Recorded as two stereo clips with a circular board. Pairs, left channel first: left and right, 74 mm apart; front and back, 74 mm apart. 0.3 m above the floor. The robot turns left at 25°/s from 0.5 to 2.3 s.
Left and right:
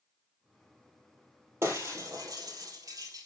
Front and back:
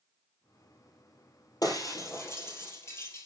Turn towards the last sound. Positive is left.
turn(degrees=-55)